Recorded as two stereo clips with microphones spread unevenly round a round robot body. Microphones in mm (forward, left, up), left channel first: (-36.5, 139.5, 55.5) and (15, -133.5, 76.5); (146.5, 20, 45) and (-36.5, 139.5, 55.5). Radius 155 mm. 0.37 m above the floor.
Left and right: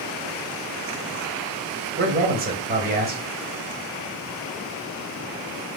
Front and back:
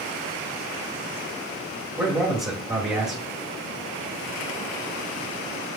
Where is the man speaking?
135° right, 2 m.